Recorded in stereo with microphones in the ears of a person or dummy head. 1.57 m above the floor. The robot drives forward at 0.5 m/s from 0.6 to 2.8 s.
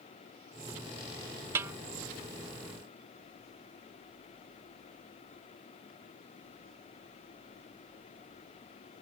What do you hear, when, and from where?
1.6 s a snare drum: 10° right (ahead or behind)